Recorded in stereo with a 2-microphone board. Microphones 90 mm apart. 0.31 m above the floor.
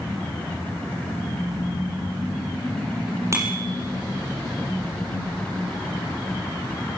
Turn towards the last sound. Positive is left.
turn(degrees=-30)  # may be behind; listen again after turning